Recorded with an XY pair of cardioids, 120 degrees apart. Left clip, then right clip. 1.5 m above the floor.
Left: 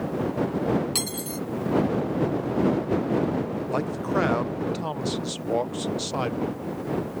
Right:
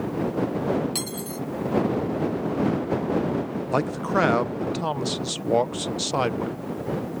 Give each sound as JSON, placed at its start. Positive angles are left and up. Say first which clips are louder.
{"t": 0.9, "sound": "cutlery clinking", "louder": "left 1 dB", "azimuth_deg": 20}
{"t": 3.7, "sound": "a man speaking", "louder": "right 4 dB", "azimuth_deg": -25}